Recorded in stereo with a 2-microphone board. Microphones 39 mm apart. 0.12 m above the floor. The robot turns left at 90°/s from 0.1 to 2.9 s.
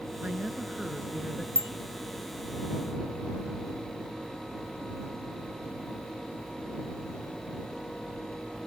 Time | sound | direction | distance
0.2 | a woman speaking | 90° right | ?
1.6 | a bicycle bell | 65° right (ahead or behind) | ?